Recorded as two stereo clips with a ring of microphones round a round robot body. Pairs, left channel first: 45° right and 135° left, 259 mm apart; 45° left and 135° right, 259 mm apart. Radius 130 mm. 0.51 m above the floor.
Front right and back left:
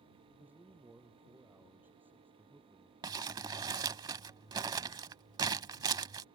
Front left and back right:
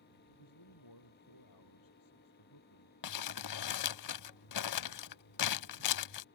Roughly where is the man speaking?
Ahead left.